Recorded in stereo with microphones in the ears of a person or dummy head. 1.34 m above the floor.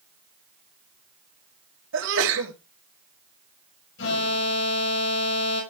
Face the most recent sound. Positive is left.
turn(degrees=75)  # may be behind; listen again after turning